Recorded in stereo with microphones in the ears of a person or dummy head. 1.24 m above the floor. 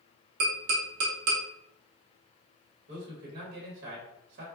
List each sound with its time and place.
0.4 s tapping: 30° right (ahead or behind), 0.8 m
2.9 s a man speaking: 55° right (ahead or behind), 1.0 m